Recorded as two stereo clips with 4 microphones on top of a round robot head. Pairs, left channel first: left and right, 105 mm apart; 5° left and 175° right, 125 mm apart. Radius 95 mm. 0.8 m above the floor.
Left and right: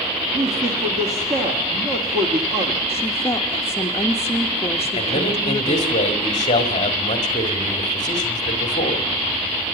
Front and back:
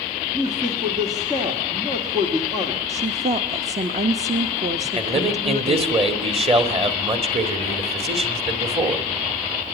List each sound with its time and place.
0.3 s a man speaking: 110° right, 2 m
2.9 s a woman speaking: 160° left, 1.0 m
5.0 s a man speaking: 145° left, 2.5 m